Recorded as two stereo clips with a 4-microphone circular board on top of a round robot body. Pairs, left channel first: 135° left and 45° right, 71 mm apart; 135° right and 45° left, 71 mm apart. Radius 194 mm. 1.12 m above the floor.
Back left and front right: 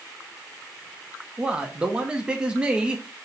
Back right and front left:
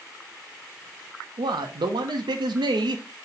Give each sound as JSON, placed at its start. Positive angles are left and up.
{"t": 1.4, "sound": "a man speaking", "azimuth_deg": 30, "distance_m": 0.5}